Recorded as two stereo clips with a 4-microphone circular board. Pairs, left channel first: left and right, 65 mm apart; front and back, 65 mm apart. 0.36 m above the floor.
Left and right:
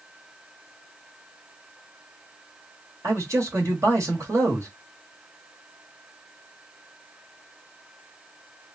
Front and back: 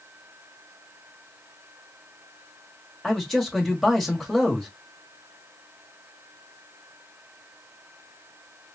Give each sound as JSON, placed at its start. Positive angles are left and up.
{"t": 3.0, "sound": "a man speaking", "azimuth_deg": -85, "distance_m": 1.6}